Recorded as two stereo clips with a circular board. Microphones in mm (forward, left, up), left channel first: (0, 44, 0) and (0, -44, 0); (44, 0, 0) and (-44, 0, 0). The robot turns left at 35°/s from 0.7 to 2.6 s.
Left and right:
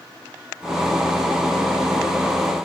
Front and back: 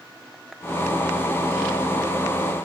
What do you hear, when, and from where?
Only background noise.